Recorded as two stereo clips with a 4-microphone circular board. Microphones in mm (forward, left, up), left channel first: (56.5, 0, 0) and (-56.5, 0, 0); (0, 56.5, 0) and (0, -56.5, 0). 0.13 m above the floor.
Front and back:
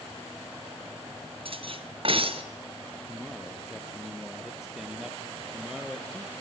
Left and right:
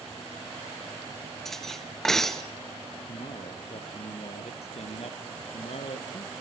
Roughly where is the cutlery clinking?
Behind.